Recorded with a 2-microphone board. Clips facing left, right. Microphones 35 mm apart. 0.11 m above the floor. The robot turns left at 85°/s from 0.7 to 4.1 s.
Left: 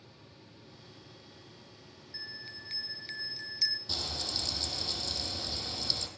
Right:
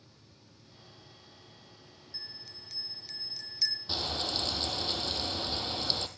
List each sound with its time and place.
2.1 s a bell: 140° left, 0.7 m; by 3.8 s straight ahead, 0.7 m
3.9 s frying: 20° right (ahead or behind), 1.6 m; by 6.1 s 35° right (ahead or behind), 1.6 m